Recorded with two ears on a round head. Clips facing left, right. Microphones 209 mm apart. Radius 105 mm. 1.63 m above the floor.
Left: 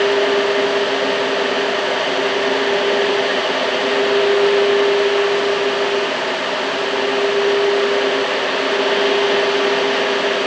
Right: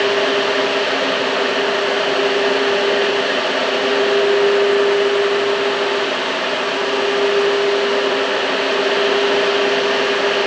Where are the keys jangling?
I don't hear keys jangling.